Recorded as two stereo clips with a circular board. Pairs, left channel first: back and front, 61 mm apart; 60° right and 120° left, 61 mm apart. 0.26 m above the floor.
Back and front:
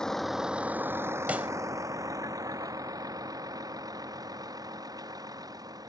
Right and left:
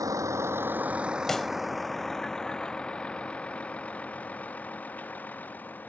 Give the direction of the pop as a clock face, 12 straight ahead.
12 o'clock.